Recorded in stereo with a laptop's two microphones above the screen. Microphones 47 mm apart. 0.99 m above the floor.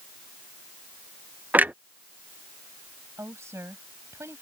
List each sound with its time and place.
1.5 s a clunk: 35° right (ahead or behind)
3.2 s a woman speaking: 80° right